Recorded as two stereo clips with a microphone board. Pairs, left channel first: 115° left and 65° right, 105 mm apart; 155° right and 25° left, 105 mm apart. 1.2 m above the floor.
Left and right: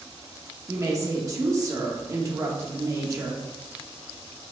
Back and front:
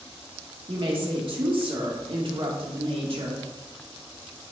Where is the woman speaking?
10° right, 1.6 m.